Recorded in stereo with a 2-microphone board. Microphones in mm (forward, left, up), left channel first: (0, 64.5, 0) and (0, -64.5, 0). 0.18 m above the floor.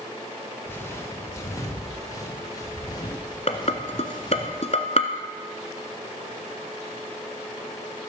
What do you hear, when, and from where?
0.7 s footsteps: 15° left (ahead or behind), 3.5 m; by 4.5 s 35° left (ahead or behind), 5.5 m
3.5 s dishes clattering: 55° left (ahead or behind), 1.3 m